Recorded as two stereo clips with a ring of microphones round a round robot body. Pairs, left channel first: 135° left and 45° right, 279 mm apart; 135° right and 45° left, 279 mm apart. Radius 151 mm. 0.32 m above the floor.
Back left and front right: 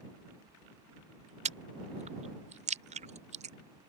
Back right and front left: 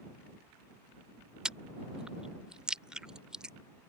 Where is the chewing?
40° right.